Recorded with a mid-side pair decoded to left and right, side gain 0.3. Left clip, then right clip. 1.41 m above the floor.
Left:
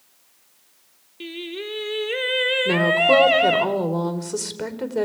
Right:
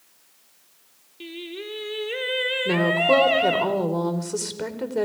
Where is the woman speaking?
15° left, 4.5 m.